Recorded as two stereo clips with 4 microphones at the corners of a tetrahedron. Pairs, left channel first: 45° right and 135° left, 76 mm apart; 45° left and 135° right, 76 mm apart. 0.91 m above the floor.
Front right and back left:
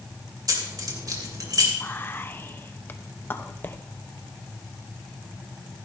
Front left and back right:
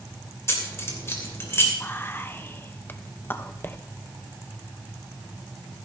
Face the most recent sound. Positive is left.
turn(degrees=0)